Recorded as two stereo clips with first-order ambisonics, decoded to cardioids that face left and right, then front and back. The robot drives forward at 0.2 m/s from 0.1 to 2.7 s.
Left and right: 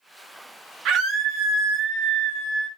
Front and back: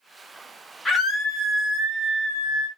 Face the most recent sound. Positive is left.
turn(degrees=-130)